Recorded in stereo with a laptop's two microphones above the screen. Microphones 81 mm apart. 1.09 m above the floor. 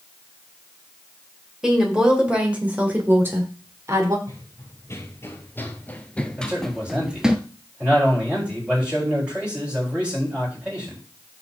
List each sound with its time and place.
1.6 s a woman speaking: 5° right (ahead or behind), 4 m; by 4.2 s 35° right (ahead or behind), 3 m
4.3 s running footsteps: 35° left (ahead or behind), 1.6 m; by 7.4 s 10° right (ahead or behind), 1.1 m
6.4 s a man speaking: 15° right (ahead or behind), 8.5 m